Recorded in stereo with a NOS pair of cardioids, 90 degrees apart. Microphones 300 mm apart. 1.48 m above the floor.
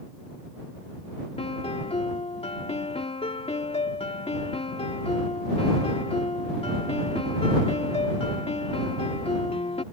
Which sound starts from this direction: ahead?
A piano, at 1.4 s.